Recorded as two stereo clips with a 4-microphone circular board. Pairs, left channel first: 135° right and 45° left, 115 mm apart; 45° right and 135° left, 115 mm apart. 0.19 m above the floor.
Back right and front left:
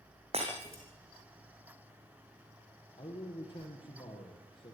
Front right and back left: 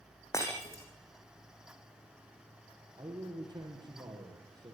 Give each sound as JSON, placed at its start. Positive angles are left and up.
{"t": 0.3, "sound": "breaking glass", "azimuth_deg": 20, "distance_m": 6.5}
{"t": 3.0, "sound": "a man speaking", "azimuth_deg": -175, "distance_m": 6.5}